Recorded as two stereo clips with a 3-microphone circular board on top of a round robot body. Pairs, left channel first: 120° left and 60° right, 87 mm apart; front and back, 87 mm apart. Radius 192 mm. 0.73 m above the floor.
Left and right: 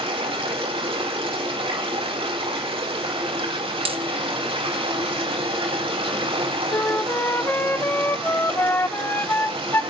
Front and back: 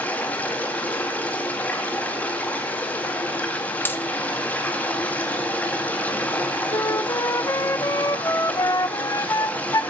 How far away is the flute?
About 0.6 m.